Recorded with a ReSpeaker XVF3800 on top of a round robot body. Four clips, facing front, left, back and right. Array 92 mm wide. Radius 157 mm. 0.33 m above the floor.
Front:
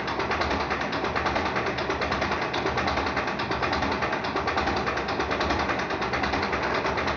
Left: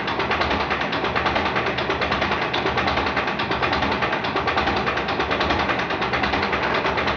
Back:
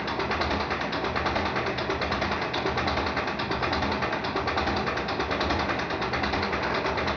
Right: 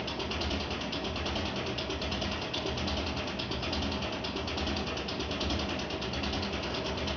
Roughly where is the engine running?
Left.